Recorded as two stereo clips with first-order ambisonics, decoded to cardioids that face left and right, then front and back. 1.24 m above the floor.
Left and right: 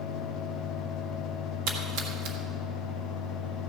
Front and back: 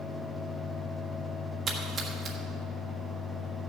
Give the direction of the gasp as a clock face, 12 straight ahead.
I don't hear a gasp.